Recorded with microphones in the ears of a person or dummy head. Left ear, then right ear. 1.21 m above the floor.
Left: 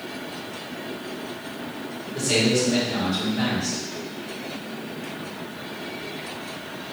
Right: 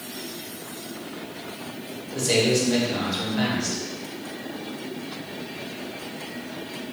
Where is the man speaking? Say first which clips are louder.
Even; 30° right (ahead or behind), 1.4 m.